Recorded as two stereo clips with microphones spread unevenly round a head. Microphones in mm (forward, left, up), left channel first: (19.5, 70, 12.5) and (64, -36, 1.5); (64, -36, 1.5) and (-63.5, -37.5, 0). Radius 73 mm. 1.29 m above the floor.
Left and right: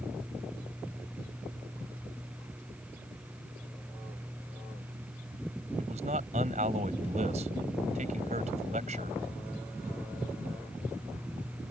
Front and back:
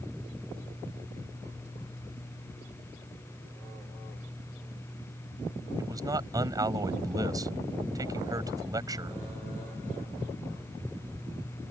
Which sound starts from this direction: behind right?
A man speaking, at 5.8 s.